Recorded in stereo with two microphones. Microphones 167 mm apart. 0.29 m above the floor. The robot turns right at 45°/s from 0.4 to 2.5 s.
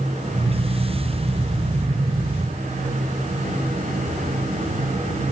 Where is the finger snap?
No finger snap in this recording.